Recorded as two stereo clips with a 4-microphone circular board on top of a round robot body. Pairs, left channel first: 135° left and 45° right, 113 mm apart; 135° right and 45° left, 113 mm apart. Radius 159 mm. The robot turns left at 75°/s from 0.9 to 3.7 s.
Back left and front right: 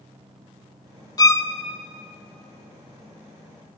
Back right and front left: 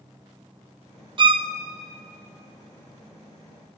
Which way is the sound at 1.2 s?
85° left.